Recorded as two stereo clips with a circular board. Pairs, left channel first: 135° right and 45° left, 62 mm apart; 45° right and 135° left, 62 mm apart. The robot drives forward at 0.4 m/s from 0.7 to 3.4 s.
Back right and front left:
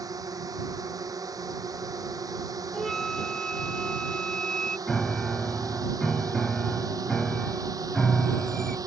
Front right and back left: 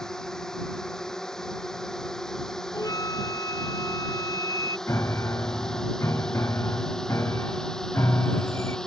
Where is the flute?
50° right; by 4.8 s 60° right.